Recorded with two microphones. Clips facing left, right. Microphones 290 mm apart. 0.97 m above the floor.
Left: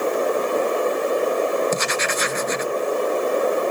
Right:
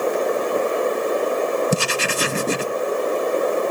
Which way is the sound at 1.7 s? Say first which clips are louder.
Right 1 dB; 35° right (ahead or behind).